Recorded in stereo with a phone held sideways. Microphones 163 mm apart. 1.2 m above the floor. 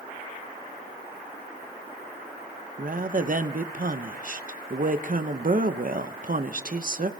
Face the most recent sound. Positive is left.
turn(degrees=-55)  # may be behind; listen again after turning